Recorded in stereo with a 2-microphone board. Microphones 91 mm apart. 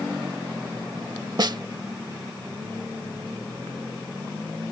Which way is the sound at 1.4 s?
50° right (ahead or behind).